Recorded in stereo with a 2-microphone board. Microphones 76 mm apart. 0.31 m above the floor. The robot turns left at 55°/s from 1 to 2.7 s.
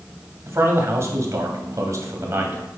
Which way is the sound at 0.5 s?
55° right.